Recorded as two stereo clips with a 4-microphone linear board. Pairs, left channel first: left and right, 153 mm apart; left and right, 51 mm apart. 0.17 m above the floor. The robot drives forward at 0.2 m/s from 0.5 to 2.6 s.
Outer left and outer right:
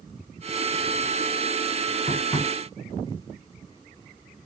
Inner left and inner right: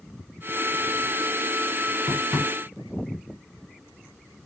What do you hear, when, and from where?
2.1 s tapping: 10° left (ahead or behind), 1.0 m